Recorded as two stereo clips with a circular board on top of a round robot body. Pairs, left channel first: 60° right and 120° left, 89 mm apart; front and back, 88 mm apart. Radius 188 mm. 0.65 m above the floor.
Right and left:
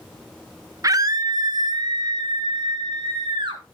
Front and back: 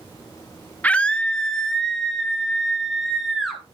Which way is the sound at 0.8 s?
70° left.